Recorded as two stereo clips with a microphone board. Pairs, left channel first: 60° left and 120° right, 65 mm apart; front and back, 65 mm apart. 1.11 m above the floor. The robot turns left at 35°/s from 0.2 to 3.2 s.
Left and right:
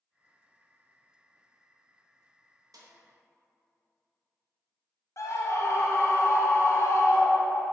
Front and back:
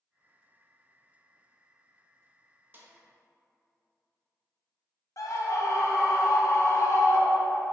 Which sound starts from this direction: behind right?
A snare drum, at 2.7 s.